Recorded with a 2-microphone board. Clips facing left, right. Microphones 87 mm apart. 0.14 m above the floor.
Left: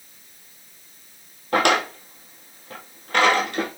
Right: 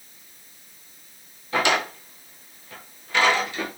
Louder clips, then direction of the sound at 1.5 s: Left 3 dB; 60° left (ahead or behind).